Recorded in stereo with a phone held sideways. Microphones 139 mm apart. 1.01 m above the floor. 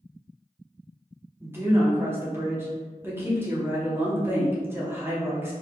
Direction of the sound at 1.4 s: 15° right (ahead or behind).